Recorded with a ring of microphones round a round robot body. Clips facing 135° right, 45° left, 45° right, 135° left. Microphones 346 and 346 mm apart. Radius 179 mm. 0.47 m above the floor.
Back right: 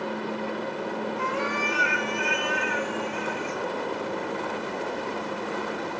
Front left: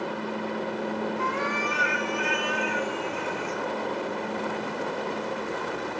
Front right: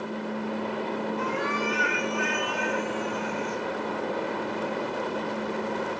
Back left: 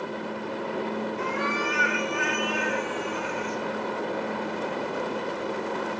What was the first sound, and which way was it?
A cat meowing, 175° left.